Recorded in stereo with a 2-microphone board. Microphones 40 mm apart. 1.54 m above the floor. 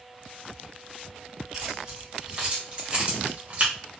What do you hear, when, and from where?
1.5 s keys jangling: 15° right (ahead or behind), 1.9 m; by 3.7 s 40° right (ahead or behind), 1.0 m